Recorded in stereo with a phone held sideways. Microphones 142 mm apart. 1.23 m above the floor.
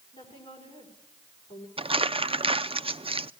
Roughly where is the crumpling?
Right.